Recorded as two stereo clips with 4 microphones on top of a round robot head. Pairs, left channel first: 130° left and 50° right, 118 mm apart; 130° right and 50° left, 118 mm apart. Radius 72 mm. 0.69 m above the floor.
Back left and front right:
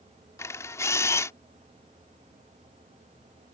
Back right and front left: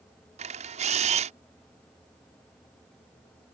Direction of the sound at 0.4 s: 65° left.